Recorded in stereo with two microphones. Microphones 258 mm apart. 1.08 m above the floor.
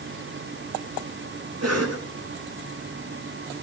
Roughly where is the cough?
Right.